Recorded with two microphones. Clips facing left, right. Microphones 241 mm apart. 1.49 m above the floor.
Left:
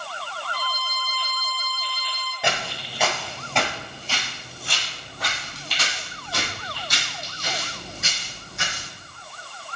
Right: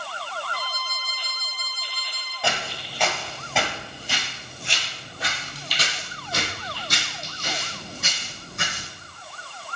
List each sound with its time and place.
0.5 s a violin: 50° right (ahead or behind), 1.0 m
2.4 s footsteps: 20° left (ahead or behind), 1.9 m; by 8.9 s 60° right (ahead or behind), 4.5 m